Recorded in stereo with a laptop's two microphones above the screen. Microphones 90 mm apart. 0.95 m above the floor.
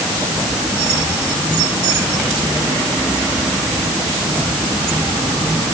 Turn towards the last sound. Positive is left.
No sound to turn to.